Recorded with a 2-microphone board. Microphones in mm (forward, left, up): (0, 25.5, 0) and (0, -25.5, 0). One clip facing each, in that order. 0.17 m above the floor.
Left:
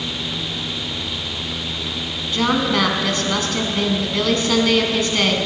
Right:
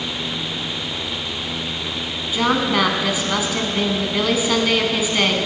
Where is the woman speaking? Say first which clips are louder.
Even; 10° right (ahead or behind), 1.4 m.